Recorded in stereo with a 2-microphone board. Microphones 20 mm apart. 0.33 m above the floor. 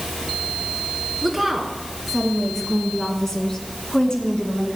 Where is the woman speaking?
5° right (ahead or behind), 4 m; by 4.8 s 40° left (ahead or behind), 3.5 m.